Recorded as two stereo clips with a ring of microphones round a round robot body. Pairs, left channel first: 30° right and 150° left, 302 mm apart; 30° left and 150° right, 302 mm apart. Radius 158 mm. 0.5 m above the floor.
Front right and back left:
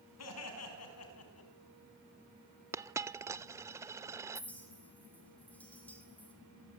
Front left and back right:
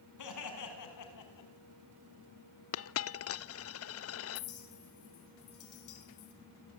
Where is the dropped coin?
70° left, 0.7 m.